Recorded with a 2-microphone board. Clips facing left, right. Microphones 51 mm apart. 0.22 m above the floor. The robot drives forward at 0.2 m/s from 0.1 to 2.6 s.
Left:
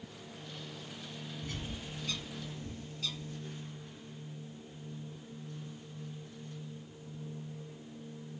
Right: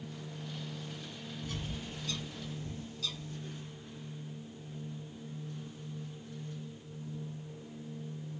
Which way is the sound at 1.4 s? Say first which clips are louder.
Right 3 dB; 35° left (ahead or behind).